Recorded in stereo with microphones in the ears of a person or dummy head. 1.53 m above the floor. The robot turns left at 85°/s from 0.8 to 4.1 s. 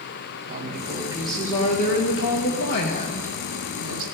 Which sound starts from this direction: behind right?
A woman speaking, at 0.5 s.